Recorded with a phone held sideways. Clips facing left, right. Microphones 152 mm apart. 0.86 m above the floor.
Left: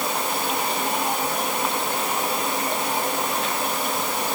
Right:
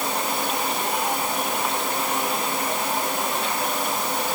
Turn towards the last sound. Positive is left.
No sound to turn to.